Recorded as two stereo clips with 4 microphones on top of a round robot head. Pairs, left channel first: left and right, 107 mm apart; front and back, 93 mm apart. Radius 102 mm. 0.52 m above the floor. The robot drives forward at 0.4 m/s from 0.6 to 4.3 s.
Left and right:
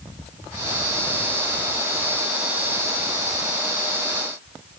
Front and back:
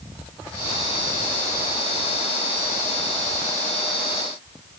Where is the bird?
I don't hear a bird.